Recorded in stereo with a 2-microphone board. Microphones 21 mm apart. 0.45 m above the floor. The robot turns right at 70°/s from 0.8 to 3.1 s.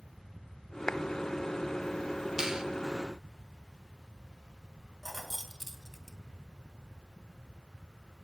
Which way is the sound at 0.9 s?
40° left (ahead or behind).